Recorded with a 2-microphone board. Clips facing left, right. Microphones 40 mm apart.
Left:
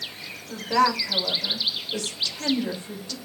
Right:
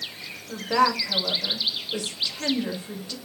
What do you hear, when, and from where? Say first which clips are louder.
0.5 s a woman speaking: even; 10° right (ahead or behind), 2 m